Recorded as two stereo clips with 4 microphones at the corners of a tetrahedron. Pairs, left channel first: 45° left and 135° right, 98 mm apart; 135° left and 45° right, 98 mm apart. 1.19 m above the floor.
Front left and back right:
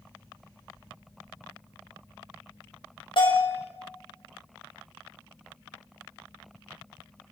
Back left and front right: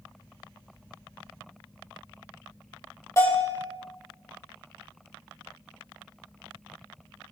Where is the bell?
75° left, 5.5 m.